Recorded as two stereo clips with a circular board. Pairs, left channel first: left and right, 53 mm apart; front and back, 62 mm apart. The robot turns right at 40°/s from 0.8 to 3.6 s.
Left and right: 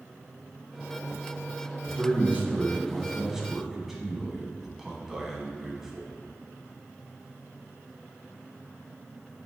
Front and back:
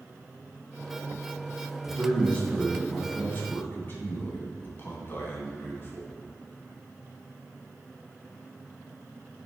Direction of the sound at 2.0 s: 70° right.